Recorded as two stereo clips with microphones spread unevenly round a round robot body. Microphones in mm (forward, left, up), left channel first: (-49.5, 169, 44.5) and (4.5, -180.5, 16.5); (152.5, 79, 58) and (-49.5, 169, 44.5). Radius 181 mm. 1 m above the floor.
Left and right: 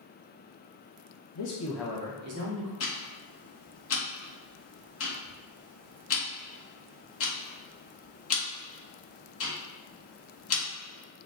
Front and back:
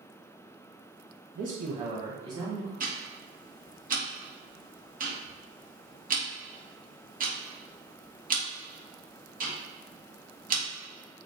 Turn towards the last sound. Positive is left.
turn(degrees=135)